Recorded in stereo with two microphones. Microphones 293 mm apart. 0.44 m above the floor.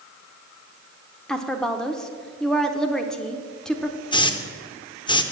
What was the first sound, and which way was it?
A woman speaking, centre (ahead or behind).